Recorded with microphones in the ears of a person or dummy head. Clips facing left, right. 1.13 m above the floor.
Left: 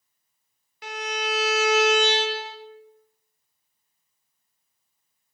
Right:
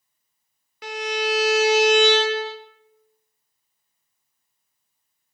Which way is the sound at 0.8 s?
65° right (ahead or behind).